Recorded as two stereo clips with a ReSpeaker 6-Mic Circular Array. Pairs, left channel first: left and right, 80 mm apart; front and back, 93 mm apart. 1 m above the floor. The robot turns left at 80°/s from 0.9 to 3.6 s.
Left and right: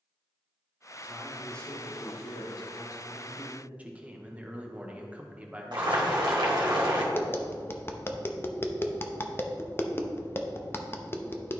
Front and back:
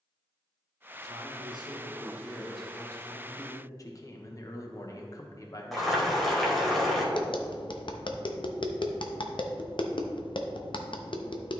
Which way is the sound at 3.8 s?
25° right.